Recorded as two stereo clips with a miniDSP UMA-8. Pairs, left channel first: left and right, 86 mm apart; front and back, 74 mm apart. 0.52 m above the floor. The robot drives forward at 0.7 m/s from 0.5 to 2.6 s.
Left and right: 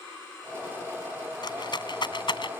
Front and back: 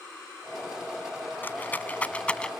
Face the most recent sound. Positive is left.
turn(degrees=75)